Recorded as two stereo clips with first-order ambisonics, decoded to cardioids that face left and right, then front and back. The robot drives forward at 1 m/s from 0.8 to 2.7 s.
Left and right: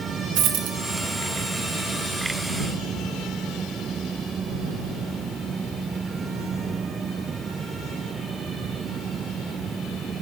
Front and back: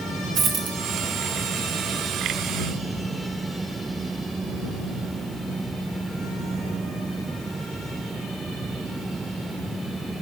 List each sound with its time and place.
0.3 s a dropped coin: 125° right, 0.5 m